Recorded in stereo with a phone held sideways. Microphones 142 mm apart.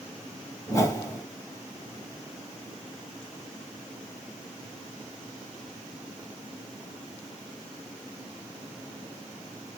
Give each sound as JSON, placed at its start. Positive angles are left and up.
{"t": 0.7, "sound": "a whoosh", "side_deg": 25, "distance_m": 1.9}